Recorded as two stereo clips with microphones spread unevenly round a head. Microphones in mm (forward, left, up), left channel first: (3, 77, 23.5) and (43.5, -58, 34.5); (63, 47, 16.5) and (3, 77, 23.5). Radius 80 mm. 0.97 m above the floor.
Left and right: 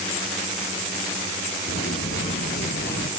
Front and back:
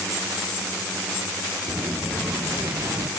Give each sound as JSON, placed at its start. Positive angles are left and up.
{"t": 1.7, "sound": "footsteps", "azimuth_deg": 90, "distance_m": 1.9}